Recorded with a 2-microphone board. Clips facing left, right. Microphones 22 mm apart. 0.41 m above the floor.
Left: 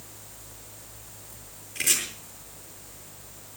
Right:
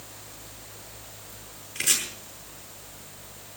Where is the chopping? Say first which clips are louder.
Even; 10° right (ahead or behind), 5.5 m.